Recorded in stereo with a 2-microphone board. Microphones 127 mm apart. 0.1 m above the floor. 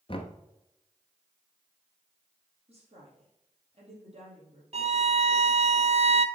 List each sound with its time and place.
0.1 s knocking: 45° left (ahead or behind), 1.0 m
2.7 s a woman speaking: 50° right (ahead or behind), 3.5 m
4.7 s a violin: 55° right (ahead or behind), 0.5 m